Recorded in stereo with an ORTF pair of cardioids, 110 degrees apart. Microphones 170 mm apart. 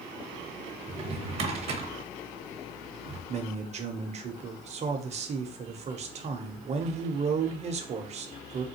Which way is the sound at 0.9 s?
40° right.